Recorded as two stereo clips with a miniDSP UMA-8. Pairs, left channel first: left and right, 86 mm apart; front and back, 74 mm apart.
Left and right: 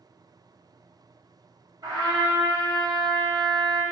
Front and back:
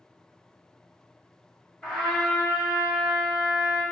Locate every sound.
1.8 s a trumpet: 75° right, 1.1 m